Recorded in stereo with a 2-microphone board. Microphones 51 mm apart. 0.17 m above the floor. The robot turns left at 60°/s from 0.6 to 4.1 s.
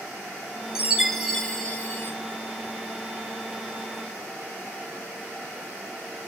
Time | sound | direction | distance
0.8 | a chime | 160° right | 0.8 m